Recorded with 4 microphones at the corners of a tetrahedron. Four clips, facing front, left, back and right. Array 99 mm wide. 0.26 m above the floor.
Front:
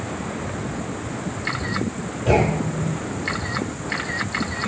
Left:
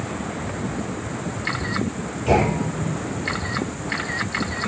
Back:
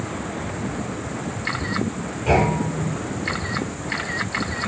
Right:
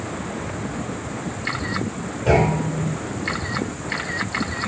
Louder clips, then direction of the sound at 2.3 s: Right 1 dB, even; 75° right.